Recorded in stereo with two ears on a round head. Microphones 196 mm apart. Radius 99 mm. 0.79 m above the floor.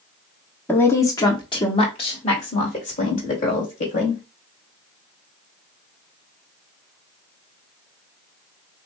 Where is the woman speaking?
10° left (ahead or behind), 1.3 m; by 4.2 s 45° left (ahead or behind), 3 m.